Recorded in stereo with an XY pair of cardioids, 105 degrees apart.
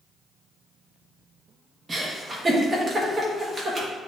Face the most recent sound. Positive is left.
turn(degrees=-25)